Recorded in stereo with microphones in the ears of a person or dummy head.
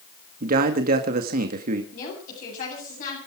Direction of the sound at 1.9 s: 50° left (ahead or behind).